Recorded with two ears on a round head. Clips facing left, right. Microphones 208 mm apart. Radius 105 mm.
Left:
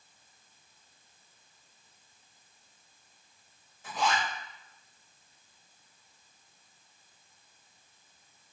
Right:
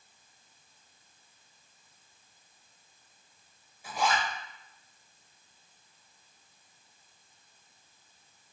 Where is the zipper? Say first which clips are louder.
Right 1 dB; 10° right (ahead or behind), 0.9 m.